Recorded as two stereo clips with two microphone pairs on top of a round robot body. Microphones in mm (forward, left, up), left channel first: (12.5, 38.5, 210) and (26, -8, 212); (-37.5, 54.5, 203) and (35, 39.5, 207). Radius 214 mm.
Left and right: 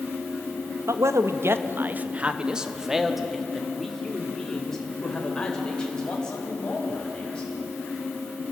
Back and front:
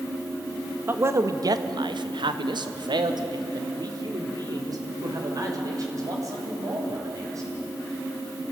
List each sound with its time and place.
0.9 s a man speaking: 75° right, 1.2 m; by 7.5 s 35° left, 5.5 m